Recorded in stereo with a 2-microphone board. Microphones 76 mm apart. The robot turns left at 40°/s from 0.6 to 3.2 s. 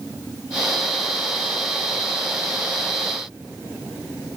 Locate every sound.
Only background noise.